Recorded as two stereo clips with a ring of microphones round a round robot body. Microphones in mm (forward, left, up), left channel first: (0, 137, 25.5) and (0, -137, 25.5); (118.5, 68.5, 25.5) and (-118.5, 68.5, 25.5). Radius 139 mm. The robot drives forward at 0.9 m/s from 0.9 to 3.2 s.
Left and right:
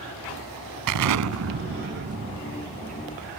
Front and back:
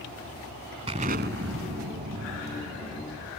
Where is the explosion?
110° right; by 3.3 s 160° right.